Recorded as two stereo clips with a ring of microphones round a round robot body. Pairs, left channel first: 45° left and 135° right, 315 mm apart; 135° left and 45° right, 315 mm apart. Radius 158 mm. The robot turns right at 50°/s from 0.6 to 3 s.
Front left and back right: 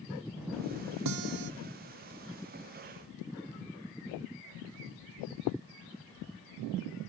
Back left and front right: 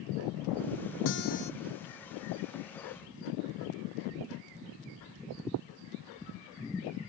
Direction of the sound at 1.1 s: 175° right.